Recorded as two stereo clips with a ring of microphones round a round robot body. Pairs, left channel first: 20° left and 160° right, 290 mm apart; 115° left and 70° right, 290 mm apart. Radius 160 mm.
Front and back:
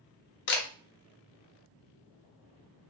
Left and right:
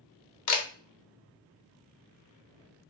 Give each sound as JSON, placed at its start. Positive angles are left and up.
{"t": 0.5, "sound": "a camera shutter", "azimuth_deg": 75, "distance_m": 0.6}